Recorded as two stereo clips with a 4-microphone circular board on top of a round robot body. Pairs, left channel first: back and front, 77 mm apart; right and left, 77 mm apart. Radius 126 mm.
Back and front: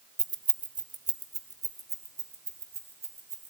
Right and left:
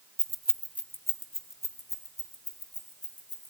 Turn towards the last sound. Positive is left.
turn(degrees=-55)